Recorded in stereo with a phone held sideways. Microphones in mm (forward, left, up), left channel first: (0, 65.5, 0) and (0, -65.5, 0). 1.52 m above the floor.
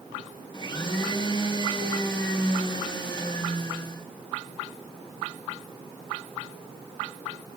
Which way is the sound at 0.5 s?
35° left (ahead or behind).